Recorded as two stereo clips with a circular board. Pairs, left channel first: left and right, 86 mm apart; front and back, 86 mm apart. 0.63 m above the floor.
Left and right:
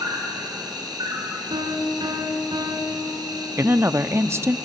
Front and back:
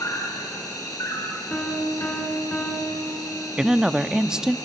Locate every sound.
0.0 s an insect: 50° right, 4 m
1.5 s a piano: 75° right, 4 m
3.6 s a woman speaking: 105° right, 0.6 m